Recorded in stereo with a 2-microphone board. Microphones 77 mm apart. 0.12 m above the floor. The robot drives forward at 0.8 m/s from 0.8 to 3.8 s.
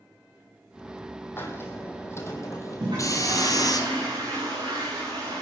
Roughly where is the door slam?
No door slam in this recording.